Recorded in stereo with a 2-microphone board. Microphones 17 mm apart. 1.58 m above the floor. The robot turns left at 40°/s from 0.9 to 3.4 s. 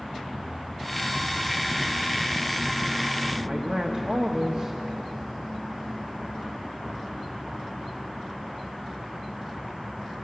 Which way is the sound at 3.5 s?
55° right (ahead or behind).